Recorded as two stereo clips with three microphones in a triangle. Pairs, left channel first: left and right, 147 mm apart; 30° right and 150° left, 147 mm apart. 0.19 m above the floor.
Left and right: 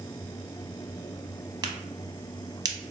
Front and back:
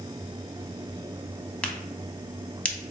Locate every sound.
1.6 s a crack: 100° right, 0.6 m